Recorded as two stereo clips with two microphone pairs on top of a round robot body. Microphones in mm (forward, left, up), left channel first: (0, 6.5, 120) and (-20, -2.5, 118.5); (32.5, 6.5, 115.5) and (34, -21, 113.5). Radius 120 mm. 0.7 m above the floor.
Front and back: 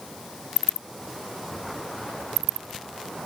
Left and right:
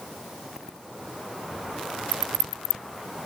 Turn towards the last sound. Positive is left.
No sound to turn to.